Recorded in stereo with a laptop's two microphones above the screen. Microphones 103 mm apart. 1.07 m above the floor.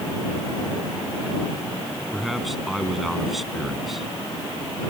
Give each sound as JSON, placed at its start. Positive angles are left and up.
{"t": 2.1, "sound": "a man speaking", "side_deg": 0}